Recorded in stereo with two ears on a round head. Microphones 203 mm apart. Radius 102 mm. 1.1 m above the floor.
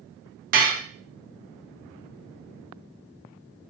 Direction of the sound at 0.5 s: 40° right (ahead or behind).